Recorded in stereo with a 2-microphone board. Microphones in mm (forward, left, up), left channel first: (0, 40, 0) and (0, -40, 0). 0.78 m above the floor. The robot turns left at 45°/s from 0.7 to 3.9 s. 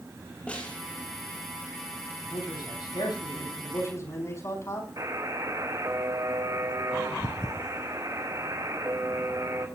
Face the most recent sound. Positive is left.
turn(degrees=-50)  # may be behind; listen again after turning